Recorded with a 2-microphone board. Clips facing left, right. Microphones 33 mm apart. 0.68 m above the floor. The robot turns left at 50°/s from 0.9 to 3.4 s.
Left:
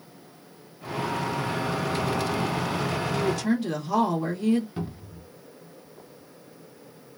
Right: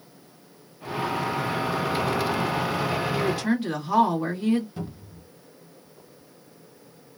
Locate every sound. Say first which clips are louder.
3.1 s a woman speaking: right 1 dB; 30° right (ahead or behind), 1.3 m; by 4.7 s 20° right (ahead or behind), 1.3 m
4.8 s a cupboard door: left 2 dB; 25° left (ahead or behind), 1.2 m